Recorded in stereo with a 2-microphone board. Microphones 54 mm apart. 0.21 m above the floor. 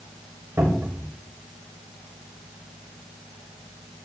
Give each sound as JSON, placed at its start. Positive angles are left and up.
{"t": 0.6, "sound": "a cupboard door", "side_deg": -55, "distance_m": 8.0}